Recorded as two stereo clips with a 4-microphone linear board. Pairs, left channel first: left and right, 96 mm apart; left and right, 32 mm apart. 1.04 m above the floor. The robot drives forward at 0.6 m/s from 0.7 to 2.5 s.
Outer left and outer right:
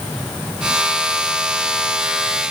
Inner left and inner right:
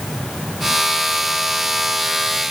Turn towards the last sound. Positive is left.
No sound to turn to.